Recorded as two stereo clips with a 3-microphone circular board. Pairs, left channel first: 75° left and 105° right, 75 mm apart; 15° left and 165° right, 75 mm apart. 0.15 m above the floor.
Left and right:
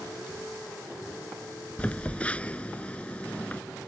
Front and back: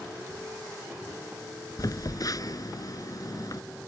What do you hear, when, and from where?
1.8 s a phone buzzing: 5° left